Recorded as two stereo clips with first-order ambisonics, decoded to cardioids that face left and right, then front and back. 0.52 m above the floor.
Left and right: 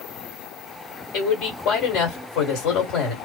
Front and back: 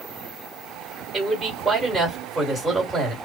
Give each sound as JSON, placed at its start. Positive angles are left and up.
{"t": 1.1, "sound": "a man speaking", "azimuth_deg": 95, "distance_m": 1.7}